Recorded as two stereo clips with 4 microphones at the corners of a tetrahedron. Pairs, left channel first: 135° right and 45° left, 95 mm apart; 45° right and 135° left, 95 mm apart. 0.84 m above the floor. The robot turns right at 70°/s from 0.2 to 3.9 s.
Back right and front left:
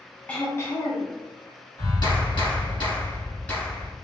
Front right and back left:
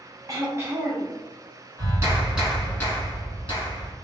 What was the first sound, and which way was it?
Throat clearing, 155° left.